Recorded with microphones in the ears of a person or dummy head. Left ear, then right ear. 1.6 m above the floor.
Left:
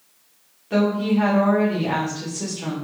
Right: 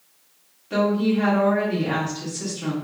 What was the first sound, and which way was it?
A woman speaking, 5° left (ahead or behind).